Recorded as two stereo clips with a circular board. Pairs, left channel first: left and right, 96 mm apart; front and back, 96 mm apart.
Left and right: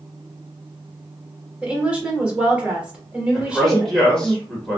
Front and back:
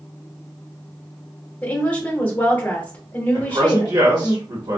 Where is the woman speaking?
40° right, 1.0 m.